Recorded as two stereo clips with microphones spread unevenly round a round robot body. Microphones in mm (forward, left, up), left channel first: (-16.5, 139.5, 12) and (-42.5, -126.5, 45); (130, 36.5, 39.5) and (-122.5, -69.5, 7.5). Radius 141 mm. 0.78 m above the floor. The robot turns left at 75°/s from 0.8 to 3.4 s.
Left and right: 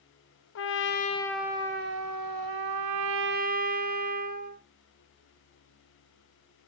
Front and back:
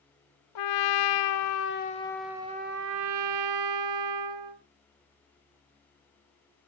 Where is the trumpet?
40° left, 1.0 m; by 4.6 s 155° right, 1.0 m.